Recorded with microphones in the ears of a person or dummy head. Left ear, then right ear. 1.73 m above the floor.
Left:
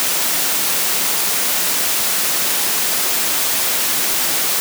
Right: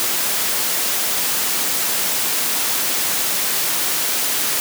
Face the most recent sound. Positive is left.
No sound to turn to.